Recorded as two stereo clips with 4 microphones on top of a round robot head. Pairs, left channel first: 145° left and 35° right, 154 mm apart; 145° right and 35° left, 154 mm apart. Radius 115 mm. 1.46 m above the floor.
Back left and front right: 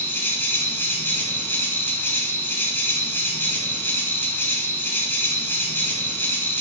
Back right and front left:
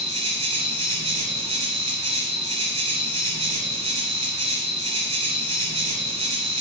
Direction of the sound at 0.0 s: 70° left.